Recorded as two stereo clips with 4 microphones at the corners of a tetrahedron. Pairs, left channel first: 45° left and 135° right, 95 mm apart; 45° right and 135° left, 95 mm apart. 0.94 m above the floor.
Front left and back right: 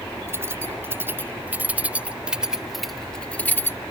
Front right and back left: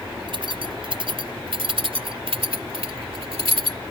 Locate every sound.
0.3 s keys jangling: 160° left; by 3.8 s 105° left